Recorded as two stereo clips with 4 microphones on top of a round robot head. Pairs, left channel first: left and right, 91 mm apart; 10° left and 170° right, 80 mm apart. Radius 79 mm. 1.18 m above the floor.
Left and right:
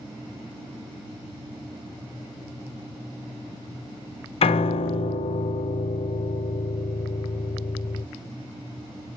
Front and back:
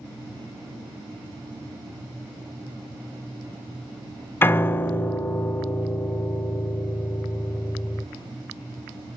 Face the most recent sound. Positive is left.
turn(degrees=75)